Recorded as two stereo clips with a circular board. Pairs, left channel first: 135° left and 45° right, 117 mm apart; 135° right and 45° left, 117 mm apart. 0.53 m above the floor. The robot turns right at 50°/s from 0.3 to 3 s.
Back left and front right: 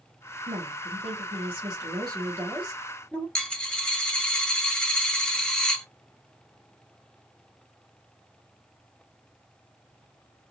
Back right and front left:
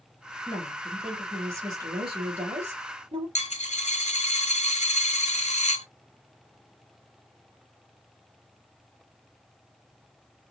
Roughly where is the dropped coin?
Behind right.